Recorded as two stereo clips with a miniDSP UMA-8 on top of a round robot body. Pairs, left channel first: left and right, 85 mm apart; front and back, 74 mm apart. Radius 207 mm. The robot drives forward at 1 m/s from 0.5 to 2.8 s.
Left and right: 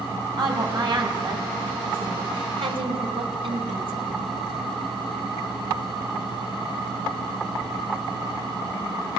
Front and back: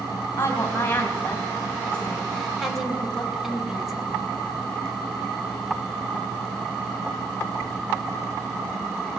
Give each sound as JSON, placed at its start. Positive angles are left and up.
{"t": 0.4, "sound": "a woman speaking", "azimuth_deg": -55, "distance_m": 4.0}